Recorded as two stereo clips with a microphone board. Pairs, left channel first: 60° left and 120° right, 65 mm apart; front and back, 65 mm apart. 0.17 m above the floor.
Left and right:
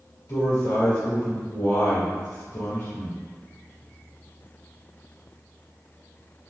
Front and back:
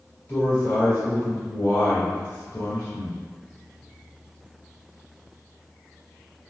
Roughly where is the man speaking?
Ahead left.